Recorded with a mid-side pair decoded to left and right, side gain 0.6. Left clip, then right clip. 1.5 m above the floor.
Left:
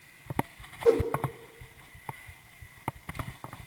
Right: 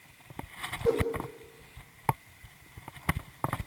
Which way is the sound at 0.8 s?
30° left.